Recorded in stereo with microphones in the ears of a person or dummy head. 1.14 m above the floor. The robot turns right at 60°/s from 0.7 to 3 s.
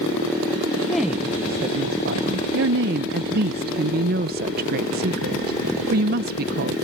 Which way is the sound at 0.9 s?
170° left.